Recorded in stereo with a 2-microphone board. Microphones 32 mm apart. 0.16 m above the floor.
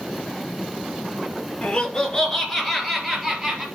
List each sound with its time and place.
1.6 s laughter: 30° left (ahead or behind), 2 m; by 3.6 s 10° right (ahead or behind), 3.5 m